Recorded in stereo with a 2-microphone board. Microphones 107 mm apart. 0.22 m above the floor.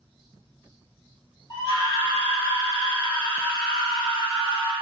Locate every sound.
1.5 s a scream: 40° left (ahead or behind), 1.9 m; by 4.7 s 10° right (ahead or behind), 1.7 m